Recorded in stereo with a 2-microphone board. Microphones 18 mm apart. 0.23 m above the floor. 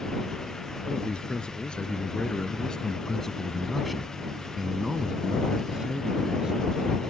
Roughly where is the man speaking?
Left.